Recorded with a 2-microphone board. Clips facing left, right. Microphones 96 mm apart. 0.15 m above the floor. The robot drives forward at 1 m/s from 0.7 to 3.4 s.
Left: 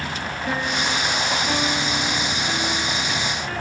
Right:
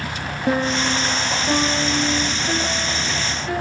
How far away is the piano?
About 2 m.